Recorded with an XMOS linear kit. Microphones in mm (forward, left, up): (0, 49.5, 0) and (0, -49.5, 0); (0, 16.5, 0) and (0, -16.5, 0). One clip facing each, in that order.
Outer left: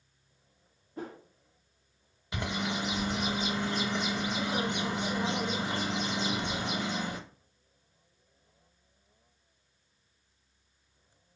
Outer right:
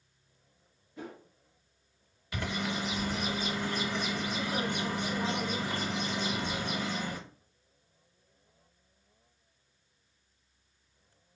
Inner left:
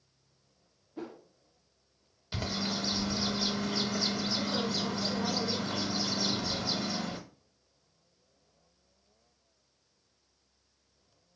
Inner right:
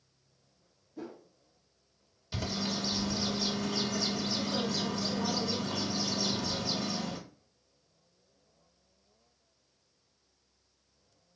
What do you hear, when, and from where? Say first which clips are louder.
1.0 s a whoosh: outer left 3 dB, inner left 1 dB; 40° left (ahead or behind), 0.6 m
2.3 s a bird: outer left 1 dB, inner left 1 dB; 20° left (ahead or behind), 0.7 m